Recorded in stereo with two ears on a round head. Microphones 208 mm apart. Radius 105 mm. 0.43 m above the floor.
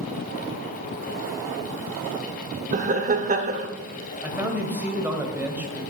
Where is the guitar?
I don't hear a guitar.